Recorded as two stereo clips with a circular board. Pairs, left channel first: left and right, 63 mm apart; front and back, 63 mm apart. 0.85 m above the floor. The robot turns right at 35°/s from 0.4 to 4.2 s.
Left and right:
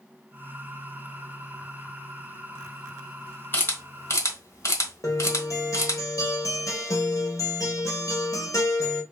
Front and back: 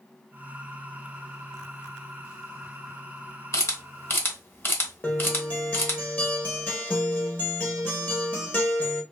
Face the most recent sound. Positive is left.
turn(degrees=60)